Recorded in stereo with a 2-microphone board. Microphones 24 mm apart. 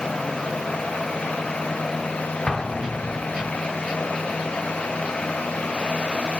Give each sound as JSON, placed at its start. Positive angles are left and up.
{"t": 2.5, "sound": "an explosion", "side_deg": 30, "distance_m": 0.5}